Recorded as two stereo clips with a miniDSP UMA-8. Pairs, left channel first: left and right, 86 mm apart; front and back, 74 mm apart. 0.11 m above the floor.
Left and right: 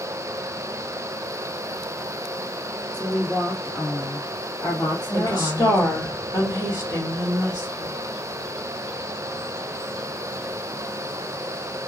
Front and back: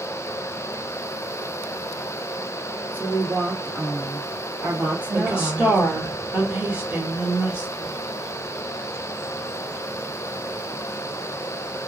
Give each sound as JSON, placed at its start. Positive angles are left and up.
{"t": 2.9, "sound": "a woman speaking", "azimuth_deg": 125, "distance_m": 1.2}
{"t": 5.1, "sound": "a woman speaking", "azimuth_deg": 115, "distance_m": 2.5}